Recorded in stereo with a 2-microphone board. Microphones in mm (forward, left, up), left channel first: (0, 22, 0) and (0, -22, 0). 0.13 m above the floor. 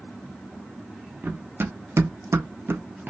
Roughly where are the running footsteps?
Right.